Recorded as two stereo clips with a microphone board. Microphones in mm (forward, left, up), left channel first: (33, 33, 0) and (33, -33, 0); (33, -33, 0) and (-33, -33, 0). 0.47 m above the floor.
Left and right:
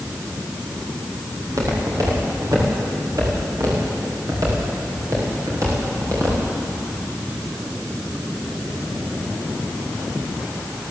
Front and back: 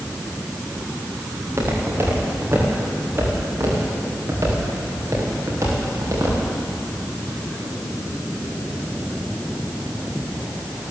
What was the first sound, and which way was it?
Footsteps, 125° right.